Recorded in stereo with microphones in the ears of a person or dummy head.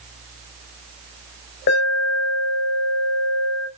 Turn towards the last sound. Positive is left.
turn(degrees=65)  # may be behind; listen again after turning